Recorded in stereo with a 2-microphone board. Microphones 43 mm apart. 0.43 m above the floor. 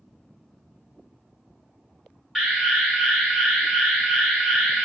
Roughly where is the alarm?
Centre.